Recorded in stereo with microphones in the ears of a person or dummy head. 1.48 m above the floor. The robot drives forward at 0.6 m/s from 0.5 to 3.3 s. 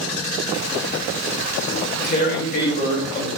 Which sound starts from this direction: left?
Tearing paper, at 1.7 s.